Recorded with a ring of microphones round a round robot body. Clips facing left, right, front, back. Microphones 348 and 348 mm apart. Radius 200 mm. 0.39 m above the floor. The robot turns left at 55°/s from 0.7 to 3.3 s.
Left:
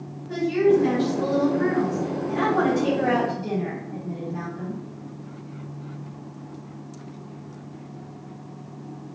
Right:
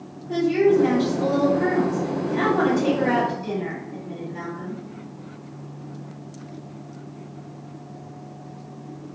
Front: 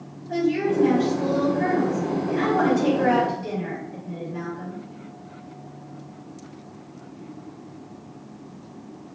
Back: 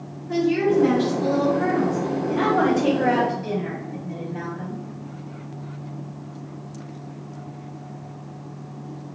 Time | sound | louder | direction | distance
0.3 | a woman speaking | right 1 dB, back 3 dB | 175° left | 1.7 m